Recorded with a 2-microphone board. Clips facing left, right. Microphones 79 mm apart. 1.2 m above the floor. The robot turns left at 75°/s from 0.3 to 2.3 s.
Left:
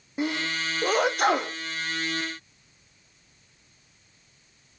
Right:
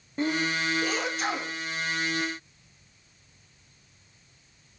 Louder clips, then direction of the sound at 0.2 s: Right 1 dB; 10° left (ahead or behind).